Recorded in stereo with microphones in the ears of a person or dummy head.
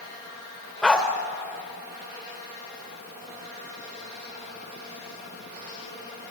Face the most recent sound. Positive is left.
turn(degrees=5)  # may be behind; listen again after turning